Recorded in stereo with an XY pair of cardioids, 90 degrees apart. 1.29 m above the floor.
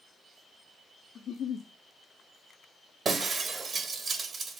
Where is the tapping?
No tapping in this recording.